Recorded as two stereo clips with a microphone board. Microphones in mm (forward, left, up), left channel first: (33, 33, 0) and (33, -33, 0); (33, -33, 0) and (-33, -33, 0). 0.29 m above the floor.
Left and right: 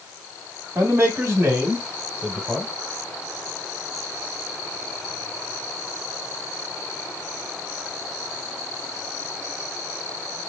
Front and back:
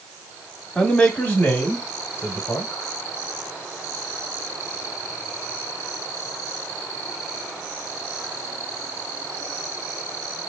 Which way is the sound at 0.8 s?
75° right.